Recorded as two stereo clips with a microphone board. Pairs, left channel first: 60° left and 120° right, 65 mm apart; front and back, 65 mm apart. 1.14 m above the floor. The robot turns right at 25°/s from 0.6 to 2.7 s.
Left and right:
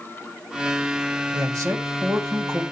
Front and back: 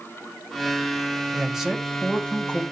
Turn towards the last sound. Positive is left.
turn(degrees=-65)